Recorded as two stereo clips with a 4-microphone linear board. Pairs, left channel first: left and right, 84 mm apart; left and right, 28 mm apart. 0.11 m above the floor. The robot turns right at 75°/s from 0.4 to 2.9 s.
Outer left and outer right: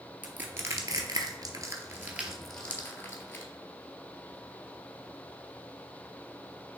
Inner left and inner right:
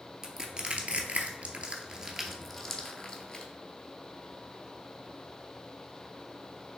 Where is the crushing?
20° right (ahead or behind), 0.9 m; by 3.5 s 25° left (ahead or behind), 0.9 m.